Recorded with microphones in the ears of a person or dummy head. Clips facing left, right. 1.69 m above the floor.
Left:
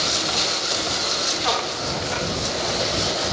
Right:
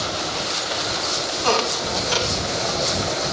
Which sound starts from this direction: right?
A squeak, at 1.4 s.